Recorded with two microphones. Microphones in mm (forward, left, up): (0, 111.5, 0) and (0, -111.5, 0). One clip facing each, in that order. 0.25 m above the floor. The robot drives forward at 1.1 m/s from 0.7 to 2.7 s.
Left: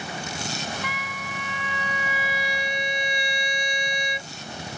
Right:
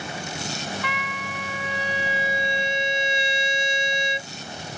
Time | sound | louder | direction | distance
0.8 | a trumpet | right 3 dB | 60° right (ahead or behind) | ?